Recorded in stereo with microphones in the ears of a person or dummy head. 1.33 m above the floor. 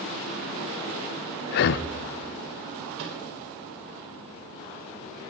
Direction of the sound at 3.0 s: 70° right (ahead or behind).